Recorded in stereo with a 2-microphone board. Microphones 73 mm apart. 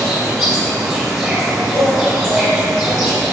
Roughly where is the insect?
Centre.